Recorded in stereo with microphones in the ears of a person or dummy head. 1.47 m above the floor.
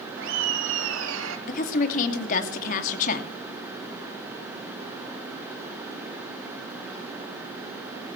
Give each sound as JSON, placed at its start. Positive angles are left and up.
{"t": 0.2, "sound": "laughter", "side_deg": -75, "distance_m": 4.0}
{"t": 1.5, "sound": "a woman speaking", "side_deg": 45, "distance_m": 2.5}